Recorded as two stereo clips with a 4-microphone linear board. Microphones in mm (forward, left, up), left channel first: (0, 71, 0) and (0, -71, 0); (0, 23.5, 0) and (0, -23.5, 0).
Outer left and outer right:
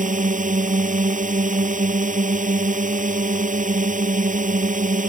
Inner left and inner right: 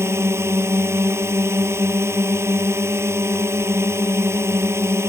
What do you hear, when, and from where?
0.0 s a drone: 65° right (ahead or behind)